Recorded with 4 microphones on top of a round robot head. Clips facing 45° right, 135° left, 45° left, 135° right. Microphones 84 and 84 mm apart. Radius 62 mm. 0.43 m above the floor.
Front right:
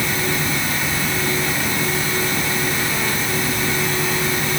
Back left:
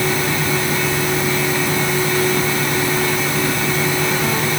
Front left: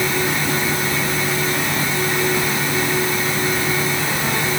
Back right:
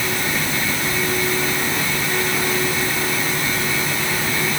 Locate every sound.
Only background noise.